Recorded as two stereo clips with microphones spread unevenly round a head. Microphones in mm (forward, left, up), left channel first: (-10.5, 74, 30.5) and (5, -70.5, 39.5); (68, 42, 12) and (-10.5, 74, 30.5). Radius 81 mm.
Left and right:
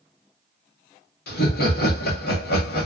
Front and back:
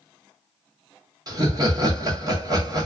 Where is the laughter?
110° left, 1.3 m.